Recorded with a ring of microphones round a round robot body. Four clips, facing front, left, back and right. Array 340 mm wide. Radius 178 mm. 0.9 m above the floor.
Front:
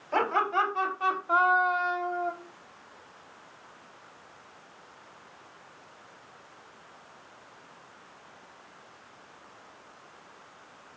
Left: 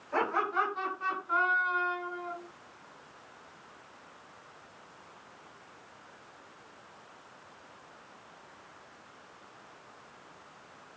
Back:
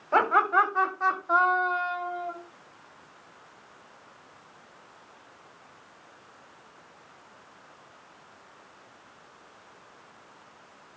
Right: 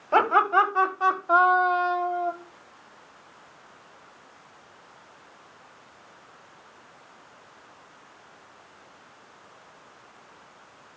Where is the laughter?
110° right, 4 m; by 2.3 s 75° right, 2.5 m.